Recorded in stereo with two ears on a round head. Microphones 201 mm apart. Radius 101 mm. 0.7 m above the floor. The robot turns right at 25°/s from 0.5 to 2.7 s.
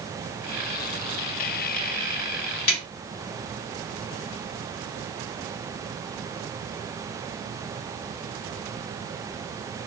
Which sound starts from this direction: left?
A snare drum, at 2.7 s.